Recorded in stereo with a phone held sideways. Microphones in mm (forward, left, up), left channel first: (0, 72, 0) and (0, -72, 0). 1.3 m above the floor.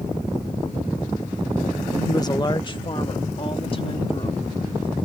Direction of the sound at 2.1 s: 20° left (ahead or behind).